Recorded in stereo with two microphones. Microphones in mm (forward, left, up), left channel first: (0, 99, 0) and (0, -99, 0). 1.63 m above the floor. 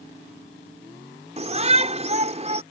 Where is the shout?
35° right (ahead or behind).